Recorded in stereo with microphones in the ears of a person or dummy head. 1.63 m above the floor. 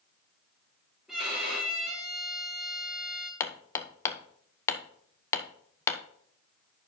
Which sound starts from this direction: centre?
A violin, at 1.1 s.